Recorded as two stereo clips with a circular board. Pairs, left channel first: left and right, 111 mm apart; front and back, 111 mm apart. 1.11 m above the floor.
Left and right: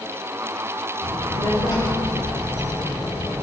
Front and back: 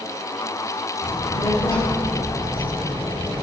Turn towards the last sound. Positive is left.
turn(degrees=25)